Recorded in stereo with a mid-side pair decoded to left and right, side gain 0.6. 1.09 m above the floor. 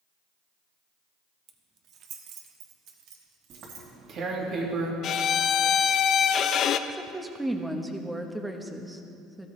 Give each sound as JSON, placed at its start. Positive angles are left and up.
{"t": 1.5, "sound": "keys jangling", "azimuth_deg": -45, "distance_m": 1.2}
{"t": 3.5, "sound": "tearing paper", "azimuth_deg": -50, "distance_m": 2.0}
{"t": 5.0, "sound": "a violin", "azimuth_deg": 50, "distance_m": 0.5}
{"t": 6.9, "sound": "a woman speaking", "azimuth_deg": -10, "distance_m": 1.2}